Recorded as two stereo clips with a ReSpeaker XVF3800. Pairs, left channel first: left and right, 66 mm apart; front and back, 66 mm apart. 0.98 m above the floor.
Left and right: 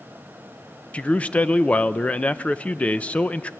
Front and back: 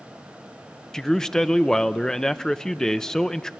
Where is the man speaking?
65° left, 0.5 m.